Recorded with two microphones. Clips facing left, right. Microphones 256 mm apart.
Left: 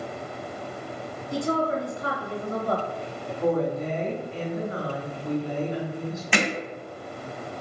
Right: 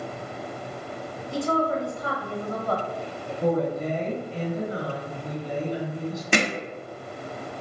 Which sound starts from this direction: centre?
A woman speaking, at 1.3 s.